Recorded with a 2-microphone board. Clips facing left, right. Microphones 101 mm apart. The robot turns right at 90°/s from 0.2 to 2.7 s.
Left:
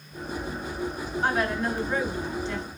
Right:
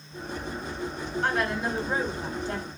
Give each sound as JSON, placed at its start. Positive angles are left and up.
{"t": 1.2, "sound": "a woman speaking", "azimuth_deg": 165, "distance_m": 1.3}